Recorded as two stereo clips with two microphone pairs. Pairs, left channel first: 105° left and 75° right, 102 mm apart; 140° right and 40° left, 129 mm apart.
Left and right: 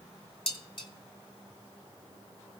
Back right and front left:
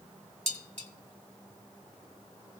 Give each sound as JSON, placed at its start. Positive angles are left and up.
{"t": 0.5, "sound": "dishes clattering", "azimuth_deg": 65, "distance_m": 1.5}